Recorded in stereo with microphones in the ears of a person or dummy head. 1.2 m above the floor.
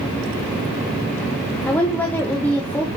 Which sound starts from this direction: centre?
A woman speaking, at 1.7 s.